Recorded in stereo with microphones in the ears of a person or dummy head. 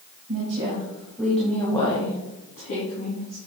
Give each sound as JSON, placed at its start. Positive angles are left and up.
{"t": 0.3, "sound": "a woman speaking", "side_deg": -35, "distance_m": 1.7}